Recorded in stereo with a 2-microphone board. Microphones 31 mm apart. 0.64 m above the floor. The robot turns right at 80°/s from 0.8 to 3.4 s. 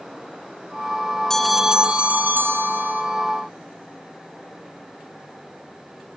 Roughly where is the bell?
Behind.